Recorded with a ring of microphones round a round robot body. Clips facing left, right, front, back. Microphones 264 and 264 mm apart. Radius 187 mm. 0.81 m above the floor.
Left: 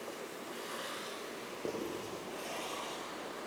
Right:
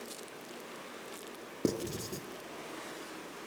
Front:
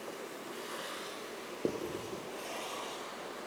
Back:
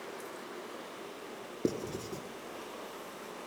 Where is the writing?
115° right, 2 m.